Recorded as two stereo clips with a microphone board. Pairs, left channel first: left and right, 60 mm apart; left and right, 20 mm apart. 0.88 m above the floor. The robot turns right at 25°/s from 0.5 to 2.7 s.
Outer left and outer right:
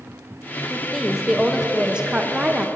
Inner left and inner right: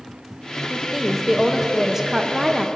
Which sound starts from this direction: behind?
A woman speaking, at 0.7 s.